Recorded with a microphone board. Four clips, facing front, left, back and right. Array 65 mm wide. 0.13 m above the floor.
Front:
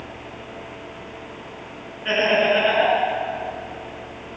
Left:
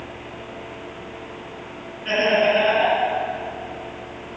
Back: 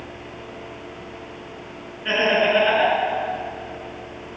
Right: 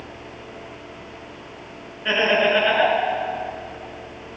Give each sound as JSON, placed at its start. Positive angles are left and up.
{"t": 2.0, "sound": "laughter", "azimuth_deg": -95, "distance_m": 1.9}